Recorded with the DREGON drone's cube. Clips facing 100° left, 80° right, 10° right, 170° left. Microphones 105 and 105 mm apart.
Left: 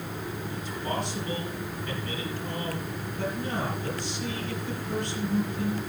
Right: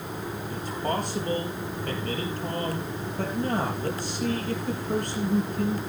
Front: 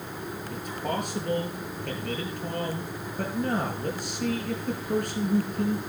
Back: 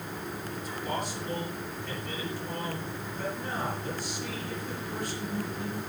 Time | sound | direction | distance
0.5 | a man speaking | 40° right | 4.5 m